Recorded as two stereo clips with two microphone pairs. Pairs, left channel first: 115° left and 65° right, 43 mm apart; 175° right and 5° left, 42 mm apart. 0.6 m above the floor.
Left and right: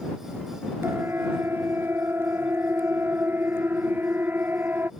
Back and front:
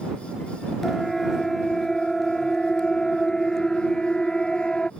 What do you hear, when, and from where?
0.8 s a siren: 85° right; by 4.9 s 100° right